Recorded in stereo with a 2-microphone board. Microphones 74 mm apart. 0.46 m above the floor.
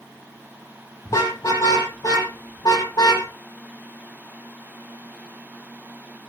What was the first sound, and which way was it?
A car horn, 45° left (ahead or behind).